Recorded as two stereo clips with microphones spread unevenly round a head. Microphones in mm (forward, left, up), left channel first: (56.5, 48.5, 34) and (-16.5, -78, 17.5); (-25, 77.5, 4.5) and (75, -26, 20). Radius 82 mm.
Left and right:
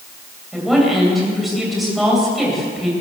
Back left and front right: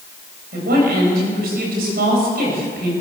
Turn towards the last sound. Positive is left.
turn(degrees=-30)